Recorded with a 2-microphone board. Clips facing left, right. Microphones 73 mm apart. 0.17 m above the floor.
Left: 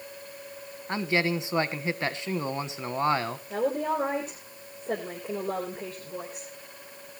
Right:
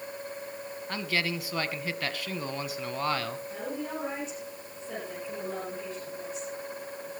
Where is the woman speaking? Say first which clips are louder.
Left 8 dB; 55° left (ahead or behind), 4 m.